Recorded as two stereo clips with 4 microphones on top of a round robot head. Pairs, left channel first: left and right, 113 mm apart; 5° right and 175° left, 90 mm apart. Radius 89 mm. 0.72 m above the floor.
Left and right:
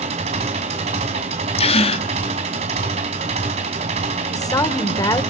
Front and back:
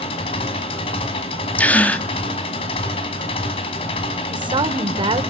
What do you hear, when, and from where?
0.0 s an engine running: 45° right, 2.5 m
1.6 s a gasp: 65° left, 1.5 m
4.3 s a woman speaking: 150° left, 3 m